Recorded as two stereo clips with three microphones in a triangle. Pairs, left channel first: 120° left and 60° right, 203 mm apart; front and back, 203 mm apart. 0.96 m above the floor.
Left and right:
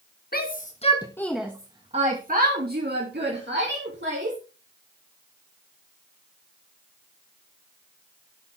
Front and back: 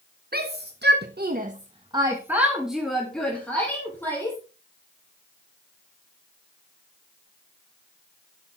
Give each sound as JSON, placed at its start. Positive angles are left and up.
{"t": 0.3, "sound": "a shout", "azimuth_deg": 150, "distance_m": 1.6}